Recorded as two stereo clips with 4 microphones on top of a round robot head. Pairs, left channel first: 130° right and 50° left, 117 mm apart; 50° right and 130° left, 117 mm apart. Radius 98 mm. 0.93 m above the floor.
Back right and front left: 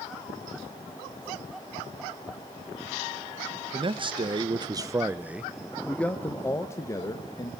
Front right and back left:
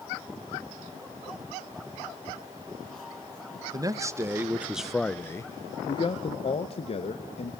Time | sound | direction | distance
3.7 | a man speaking | 80° left | 1.1 m